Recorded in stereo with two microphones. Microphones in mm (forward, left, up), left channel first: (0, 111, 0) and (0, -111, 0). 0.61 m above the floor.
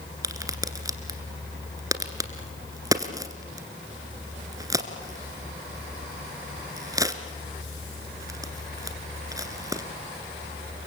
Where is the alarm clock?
I don't hear an alarm clock.